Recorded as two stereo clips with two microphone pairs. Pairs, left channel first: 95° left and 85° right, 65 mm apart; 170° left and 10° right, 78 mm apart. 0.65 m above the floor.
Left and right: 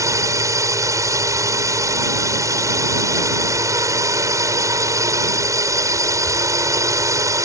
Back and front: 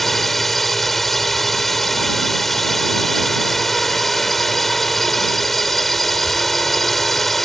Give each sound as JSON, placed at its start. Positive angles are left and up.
{"t": 0.0, "sound": "a drone", "azimuth_deg": -105}